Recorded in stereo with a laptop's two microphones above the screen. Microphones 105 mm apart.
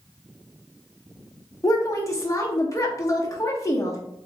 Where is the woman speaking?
30° left (ahead or behind), 0.8 m.